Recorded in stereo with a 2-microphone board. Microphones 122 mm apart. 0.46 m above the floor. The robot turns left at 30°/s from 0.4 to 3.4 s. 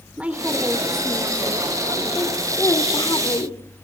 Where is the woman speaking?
165° right, 1.5 m; by 3.8 s 105° left, 1.5 m.